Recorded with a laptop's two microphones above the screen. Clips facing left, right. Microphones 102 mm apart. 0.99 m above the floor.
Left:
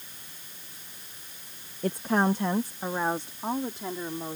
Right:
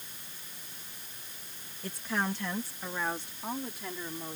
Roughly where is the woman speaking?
Left.